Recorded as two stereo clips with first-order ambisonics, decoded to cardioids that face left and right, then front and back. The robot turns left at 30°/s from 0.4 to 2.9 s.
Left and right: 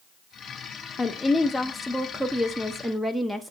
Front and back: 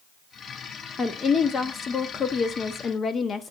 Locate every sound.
1.0 s a woman speaking: 45° left, 0.7 m; by 3.5 s 10° right, 0.7 m